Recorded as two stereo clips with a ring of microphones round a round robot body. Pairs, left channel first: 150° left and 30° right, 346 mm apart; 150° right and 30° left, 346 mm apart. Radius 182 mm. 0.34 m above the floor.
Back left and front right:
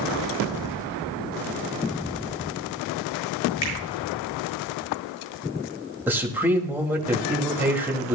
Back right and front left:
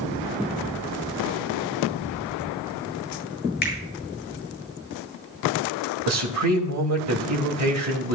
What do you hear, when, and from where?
3.6 s a finger snap: 150° left, 6.5 m
6.1 s a man speaking: 55° left, 2 m